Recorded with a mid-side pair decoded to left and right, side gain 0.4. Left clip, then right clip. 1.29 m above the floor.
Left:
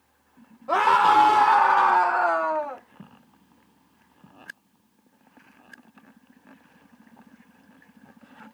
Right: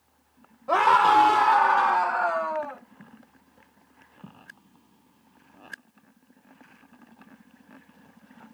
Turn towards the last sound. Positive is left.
turn(degrees=55)